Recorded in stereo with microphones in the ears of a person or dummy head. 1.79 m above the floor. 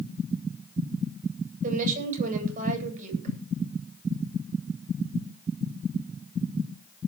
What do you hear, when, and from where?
1.6 s a woman speaking: 45° right (ahead or behind), 9 m